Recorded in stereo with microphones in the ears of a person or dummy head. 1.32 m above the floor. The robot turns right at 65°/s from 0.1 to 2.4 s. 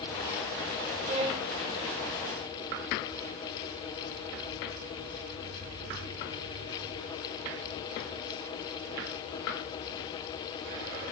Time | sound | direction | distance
1.0 | a violin | 45° right | 5.5 m